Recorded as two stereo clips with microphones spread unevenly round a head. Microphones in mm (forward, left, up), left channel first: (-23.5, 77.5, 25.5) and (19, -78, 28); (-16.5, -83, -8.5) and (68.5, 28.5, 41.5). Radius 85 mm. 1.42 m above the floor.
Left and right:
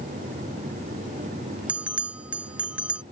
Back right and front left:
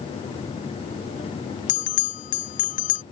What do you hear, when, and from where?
1.7 s a bell: 150° right